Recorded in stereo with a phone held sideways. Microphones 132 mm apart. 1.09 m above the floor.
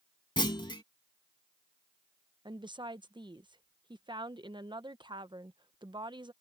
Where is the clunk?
35° left (ahead or behind).